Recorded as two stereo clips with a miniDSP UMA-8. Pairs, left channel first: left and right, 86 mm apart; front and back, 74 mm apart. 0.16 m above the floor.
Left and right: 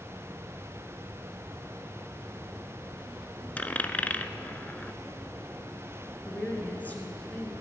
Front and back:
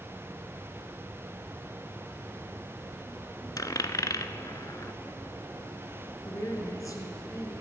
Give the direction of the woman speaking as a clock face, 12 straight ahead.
11 o'clock.